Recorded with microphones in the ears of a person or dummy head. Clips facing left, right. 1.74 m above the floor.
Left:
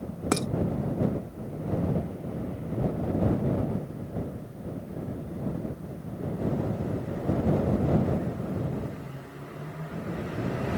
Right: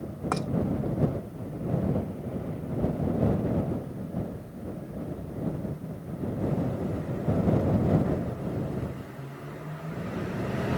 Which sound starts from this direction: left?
Dishes clattering, at 0.3 s.